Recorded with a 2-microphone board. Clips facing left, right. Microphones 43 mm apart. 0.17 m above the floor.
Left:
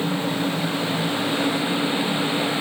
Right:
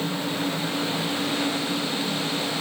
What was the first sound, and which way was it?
Only background noise.